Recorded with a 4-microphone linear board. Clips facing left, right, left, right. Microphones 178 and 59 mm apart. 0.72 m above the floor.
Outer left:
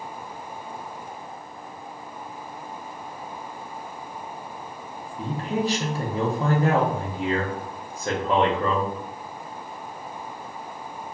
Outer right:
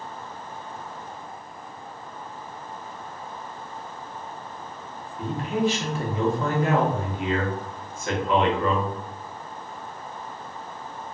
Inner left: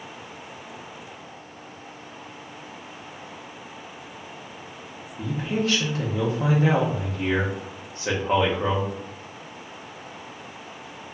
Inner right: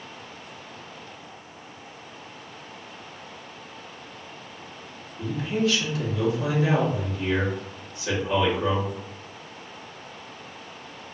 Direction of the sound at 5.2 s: 35° left (ahead or behind).